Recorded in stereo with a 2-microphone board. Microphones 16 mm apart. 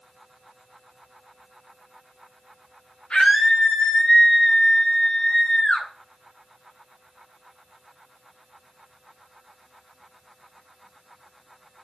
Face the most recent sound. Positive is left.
turn(degrees=75)  # may be behind; listen again after turning